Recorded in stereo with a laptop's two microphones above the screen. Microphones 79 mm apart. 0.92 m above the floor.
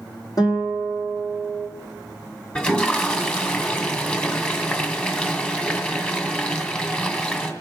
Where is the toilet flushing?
15° left (ahead or behind), 2.0 m.